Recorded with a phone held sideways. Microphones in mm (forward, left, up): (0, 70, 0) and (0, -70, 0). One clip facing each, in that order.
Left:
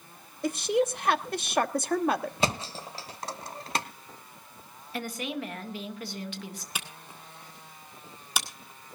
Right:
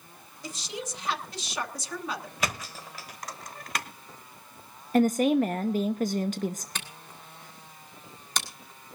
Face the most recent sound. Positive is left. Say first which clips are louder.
# even
turn(degrees=10)  # may be behind; listen again after turning